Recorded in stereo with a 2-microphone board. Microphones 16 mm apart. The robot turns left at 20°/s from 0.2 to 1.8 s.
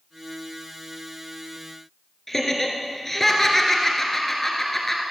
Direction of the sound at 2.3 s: 15° left (ahead or behind).